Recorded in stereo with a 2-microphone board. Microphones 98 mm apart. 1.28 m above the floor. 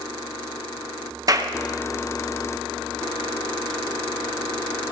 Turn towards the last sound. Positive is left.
turn(degrees=-35)  # may be behind; listen again after turning